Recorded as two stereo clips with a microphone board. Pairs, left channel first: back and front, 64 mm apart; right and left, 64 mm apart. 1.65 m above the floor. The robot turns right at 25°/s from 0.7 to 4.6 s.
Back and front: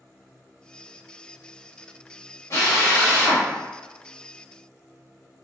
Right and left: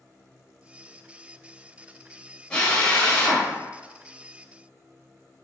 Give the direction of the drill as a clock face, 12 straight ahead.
5 o'clock.